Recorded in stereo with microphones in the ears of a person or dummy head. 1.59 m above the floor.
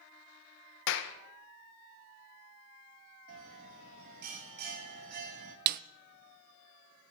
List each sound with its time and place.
0.9 s a clap: 70° left (ahead or behind), 1.1 m
3.3 s a bell: 45° right (ahead or behind), 1.6 m
5.7 s a snare drum: 55° right (ahead or behind), 0.6 m